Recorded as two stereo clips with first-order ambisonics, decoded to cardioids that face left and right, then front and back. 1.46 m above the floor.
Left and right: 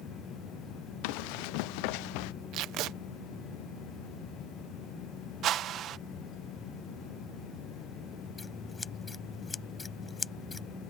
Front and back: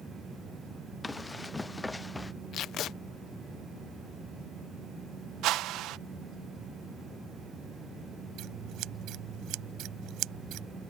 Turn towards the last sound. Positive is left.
turn(degrees=165)